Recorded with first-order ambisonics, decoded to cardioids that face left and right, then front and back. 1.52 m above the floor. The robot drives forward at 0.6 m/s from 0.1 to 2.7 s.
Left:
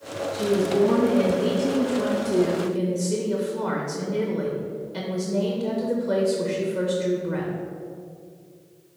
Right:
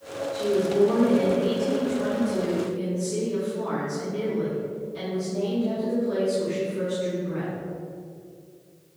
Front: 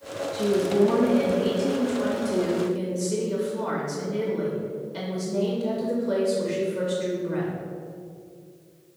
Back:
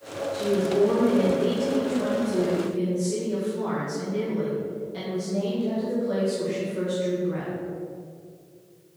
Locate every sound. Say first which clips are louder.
0.3 s a woman speaking: left 1 dB, front 1 dB; 50° left, 2.0 m; by 7.5 s 95° left, 1.5 m